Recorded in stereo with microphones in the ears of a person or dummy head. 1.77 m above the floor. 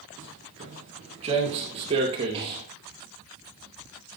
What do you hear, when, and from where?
0.2 s footsteps: 30° right (ahead or behind), 1.9 m; by 2.6 s 25° right (ahead or behind), 3 m